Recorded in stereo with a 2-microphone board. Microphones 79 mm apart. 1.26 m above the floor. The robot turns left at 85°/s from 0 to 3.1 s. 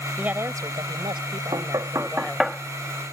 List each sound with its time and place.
0.2 s a woman speaking: 15° right; by 2.5 s 155° left
1.5 s knocking: 65° right (ahead or behind); by 3.1 s 45° left (ahead or behind)